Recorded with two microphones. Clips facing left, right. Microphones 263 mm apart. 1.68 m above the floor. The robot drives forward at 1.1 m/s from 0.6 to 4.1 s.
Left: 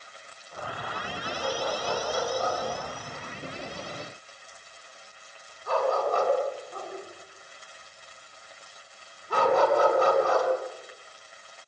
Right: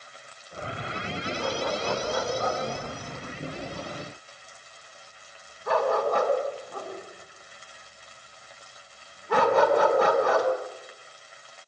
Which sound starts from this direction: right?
A dog barking, at 1.4 s.